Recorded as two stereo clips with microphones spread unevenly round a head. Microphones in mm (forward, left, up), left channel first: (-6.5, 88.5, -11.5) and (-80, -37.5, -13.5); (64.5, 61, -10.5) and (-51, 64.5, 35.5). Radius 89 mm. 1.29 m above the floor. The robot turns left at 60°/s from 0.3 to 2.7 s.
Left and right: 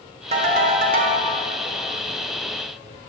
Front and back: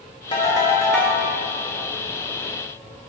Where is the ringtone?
75° right, 0.7 m; by 1.2 s 130° right, 0.7 m.